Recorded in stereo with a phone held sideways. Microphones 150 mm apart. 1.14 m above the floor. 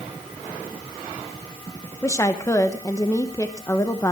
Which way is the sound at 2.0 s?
20° left (ahead or behind).